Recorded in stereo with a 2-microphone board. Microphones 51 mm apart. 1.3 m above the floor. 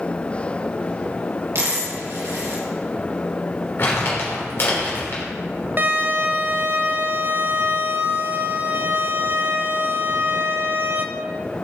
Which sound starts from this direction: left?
Crumpling, at 3.8 s.